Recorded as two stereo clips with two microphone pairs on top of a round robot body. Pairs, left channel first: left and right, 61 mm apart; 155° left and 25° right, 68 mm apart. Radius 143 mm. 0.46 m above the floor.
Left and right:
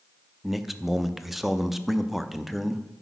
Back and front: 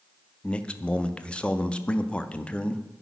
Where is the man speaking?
155° right, 0.8 m.